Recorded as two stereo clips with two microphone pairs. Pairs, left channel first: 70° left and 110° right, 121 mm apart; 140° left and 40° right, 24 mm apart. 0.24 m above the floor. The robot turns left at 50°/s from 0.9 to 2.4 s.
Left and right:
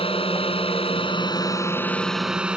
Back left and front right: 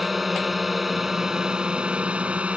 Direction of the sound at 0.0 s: 45° left.